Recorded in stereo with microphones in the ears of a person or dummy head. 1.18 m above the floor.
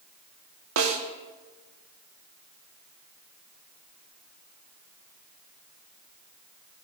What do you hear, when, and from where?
0.8 s a snare drum: 80° right, 1.6 m